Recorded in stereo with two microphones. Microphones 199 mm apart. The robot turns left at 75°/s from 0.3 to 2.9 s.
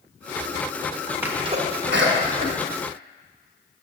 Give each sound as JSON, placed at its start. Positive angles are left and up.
{"t": 1.2, "sound": "a sneeze", "side_deg": -10, "distance_m": 1.3}